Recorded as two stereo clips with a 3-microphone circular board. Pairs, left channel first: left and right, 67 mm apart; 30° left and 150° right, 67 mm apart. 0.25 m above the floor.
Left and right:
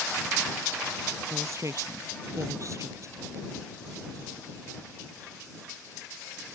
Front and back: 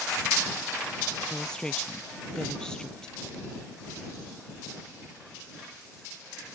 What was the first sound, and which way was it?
A woman speaking, 50° right.